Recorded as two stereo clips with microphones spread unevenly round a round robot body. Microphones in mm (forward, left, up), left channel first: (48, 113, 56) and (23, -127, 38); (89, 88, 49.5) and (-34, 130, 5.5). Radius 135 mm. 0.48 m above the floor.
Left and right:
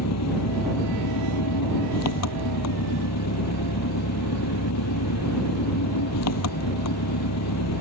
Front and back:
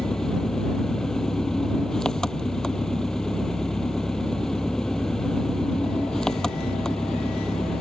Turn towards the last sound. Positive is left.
turn(degrees=65)